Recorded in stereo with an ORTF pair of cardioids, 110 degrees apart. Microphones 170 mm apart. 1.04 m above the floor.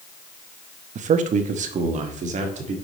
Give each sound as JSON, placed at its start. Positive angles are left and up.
{"t": 0.9, "sound": "a man speaking", "azimuth_deg": -50, "distance_m": 1.0}